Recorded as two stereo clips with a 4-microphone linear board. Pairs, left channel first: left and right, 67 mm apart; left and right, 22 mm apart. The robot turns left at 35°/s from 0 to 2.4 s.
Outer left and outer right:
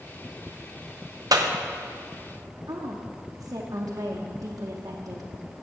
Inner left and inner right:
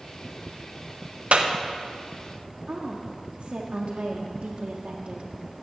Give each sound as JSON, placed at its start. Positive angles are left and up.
{"t": 1.3, "sound": "a clap", "side_deg": -70, "distance_m": 0.7}
{"t": 2.7, "sound": "a woman speaking", "side_deg": -65, "distance_m": 0.7}